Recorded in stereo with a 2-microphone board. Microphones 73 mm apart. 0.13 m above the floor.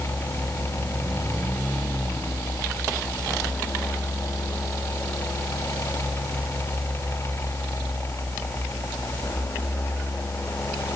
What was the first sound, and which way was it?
Only background noise.